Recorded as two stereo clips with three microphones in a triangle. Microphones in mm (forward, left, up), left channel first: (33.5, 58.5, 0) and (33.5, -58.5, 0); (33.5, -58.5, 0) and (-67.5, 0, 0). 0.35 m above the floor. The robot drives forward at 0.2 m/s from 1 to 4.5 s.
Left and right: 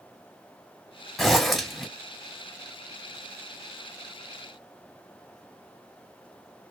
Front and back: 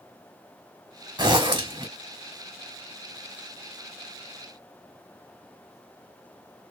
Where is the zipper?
Straight behind, 1.0 m.